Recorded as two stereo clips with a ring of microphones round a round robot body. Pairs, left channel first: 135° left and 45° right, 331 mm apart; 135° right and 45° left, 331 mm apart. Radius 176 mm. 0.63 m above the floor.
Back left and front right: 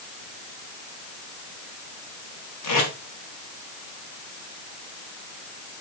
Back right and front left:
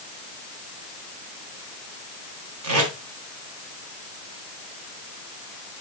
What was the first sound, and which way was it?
Tape being pulled, 95° left.